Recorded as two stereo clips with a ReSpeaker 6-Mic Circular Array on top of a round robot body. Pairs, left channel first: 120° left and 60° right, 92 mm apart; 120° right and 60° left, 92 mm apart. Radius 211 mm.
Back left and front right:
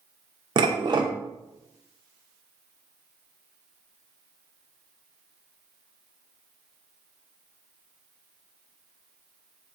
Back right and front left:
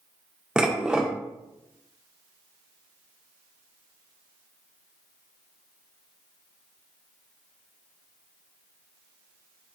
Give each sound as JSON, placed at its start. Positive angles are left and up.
{"t": 0.6, "sound": "dishes clattering", "azimuth_deg": -20, "distance_m": 0.7}